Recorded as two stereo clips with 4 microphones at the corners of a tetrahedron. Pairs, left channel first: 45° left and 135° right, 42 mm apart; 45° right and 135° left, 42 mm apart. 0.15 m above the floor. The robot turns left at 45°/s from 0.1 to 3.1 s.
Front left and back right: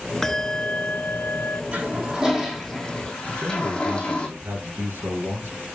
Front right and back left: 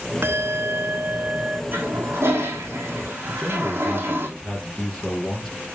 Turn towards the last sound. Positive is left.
turn(degrees=-135)